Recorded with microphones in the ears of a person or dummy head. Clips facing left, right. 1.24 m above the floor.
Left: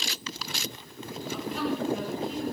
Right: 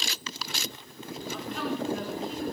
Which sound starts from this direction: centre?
A woman speaking, at 1.3 s.